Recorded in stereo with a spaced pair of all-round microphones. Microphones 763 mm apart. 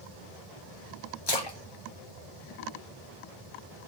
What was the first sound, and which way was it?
A splash, 35° left (ahead or behind).